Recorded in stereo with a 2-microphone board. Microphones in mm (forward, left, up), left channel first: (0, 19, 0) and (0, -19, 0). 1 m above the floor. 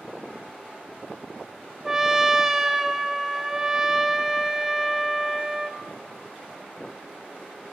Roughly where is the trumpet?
Centre.